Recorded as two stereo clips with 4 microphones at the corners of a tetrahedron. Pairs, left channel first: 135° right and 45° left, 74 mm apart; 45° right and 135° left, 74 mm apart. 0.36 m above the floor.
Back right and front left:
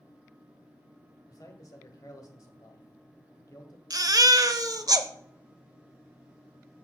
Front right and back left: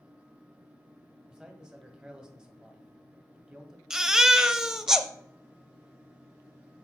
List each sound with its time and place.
1.3 s a man speaking: 150° right, 1.8 m
3.9 s a baby crying: 55° left, 0.7 m